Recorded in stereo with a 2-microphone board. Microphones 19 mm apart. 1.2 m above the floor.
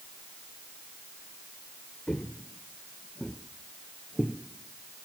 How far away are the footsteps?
About 1.6 m.